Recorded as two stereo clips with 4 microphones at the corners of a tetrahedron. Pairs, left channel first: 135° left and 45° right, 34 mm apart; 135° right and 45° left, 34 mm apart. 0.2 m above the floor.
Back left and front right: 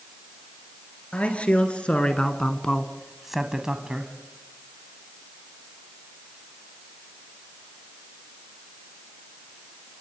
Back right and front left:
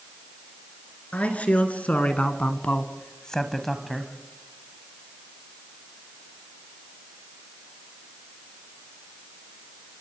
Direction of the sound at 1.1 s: Straight behind.